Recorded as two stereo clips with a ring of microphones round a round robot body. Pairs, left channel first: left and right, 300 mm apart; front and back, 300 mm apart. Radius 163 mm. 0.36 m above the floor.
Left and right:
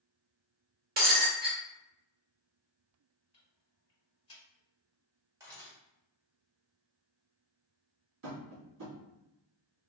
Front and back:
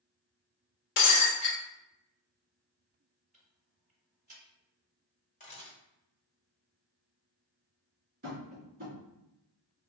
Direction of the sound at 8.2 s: 120° right.